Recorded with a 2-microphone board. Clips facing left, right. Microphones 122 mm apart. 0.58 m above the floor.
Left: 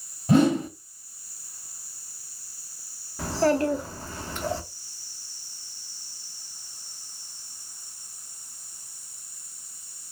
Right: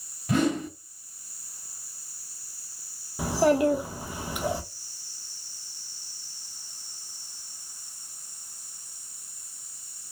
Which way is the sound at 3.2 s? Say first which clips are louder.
Right 1 dB; 15° right (ahead or behind).